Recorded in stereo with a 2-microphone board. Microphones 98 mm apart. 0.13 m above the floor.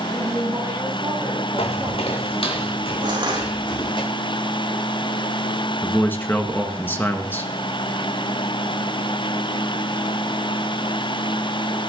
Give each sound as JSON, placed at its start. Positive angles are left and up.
{"t": 0.1, "sound": "a woman speaking", "side_deg": -30, "distance_m": 7.5}
{"t": 1.6, "sound": "footsteps", "side_deg": 80, "distance_m": 2.0}
{"t": 3.0, "sound": "crushing", "side_deg": -50, "distance_m": 4.5}
{"t": 5.8, "sound": "a man speaking", "side_deg": 20, "distance_m": 1.5}